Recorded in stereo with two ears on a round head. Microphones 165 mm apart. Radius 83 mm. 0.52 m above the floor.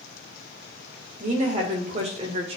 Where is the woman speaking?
40° right (ahead or behind), 2.5 m; by 2.6 s 30° right (ahead or behind), 1.6 m.